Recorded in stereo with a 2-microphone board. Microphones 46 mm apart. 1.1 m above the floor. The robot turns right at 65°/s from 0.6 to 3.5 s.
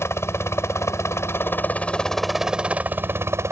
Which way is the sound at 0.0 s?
70° left.